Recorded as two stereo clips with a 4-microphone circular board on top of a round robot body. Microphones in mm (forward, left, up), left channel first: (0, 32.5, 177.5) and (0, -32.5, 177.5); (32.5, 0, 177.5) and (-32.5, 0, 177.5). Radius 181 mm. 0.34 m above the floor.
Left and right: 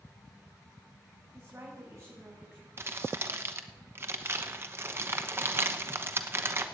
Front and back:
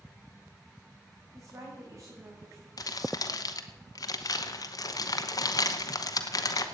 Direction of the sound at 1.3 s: 135° right.